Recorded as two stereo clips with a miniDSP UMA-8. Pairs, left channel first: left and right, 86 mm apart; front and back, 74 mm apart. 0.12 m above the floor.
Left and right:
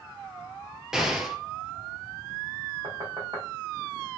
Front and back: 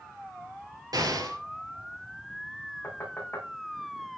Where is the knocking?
60° right, 5 m.